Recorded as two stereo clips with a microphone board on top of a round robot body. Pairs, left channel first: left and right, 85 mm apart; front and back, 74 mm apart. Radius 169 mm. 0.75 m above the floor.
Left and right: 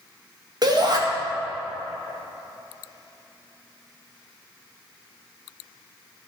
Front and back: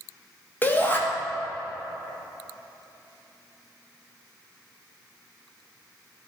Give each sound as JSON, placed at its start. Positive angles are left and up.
{"t": 0.6, "sound": "a shout", "azimuth_deg": -60, "distance_m": 2.0}